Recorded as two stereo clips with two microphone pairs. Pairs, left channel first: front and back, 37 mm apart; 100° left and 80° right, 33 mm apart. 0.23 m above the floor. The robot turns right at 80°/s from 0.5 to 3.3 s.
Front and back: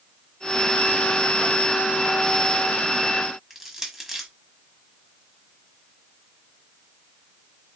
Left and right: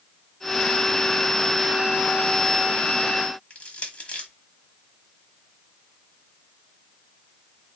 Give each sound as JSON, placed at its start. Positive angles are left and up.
{"t": 3.5, "sound": "crushing", "azimuth_deg": 110, "distance_m": 1.1}